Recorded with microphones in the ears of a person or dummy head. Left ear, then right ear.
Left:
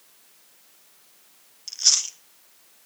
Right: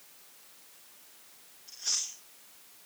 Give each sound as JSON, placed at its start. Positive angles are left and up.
{"t": 1.7, "sound": "chewing", "side_deg": 70, "distance_m": 1.1}